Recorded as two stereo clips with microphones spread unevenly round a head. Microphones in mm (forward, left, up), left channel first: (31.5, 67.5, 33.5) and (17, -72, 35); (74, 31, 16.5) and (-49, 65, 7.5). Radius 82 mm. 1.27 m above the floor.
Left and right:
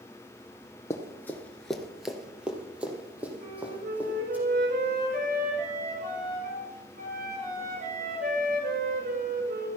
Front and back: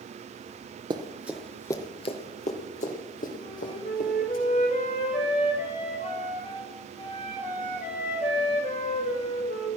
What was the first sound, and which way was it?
Running footsteps, 145° left.